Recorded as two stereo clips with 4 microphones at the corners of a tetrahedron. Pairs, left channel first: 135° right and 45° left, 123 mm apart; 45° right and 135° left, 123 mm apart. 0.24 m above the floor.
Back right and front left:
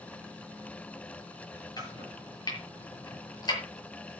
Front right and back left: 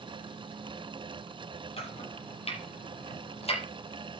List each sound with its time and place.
1.8 s chopping: 80° right, 7 m